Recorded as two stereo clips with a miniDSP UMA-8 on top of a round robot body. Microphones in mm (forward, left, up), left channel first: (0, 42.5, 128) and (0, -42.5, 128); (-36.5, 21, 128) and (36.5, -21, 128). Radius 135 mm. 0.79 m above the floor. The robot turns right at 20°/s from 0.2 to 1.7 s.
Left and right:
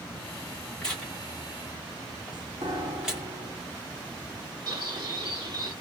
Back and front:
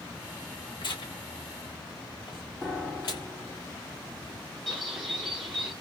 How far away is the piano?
About 1.8 m.